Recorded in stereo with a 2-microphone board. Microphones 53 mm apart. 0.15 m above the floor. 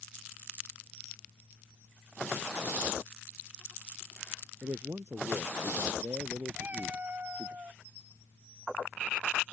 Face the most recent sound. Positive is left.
turn(degrees=-35)  # may be behind; listen again after turning